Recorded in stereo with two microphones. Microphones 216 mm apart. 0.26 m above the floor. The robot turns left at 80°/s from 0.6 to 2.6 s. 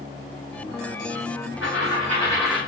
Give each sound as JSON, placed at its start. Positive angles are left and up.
{"t": 1.6, "sound": "a dropped coin", "azimuth_deg": 75, "distance_m": 4.5}